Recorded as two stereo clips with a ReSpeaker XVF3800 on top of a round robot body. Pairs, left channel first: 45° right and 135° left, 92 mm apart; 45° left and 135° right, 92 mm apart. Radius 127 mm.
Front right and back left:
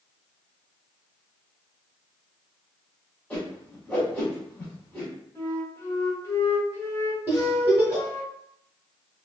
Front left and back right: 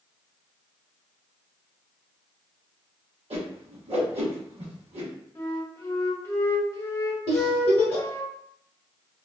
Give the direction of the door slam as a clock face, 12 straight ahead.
I don't hear a door slam.